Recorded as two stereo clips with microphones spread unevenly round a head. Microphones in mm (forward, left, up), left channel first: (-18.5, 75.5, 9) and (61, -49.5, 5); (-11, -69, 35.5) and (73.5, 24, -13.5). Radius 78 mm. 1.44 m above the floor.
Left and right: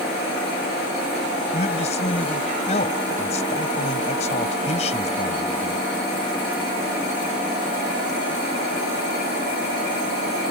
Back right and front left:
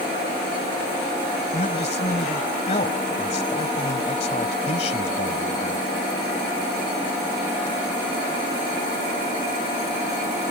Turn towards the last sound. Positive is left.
turn(degrees=175)